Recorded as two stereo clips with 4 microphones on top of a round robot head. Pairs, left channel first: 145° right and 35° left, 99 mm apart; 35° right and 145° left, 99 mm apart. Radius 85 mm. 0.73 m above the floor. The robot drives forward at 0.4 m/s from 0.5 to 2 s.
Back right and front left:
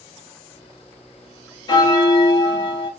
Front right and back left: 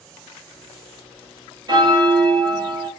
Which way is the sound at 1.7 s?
Straight behind.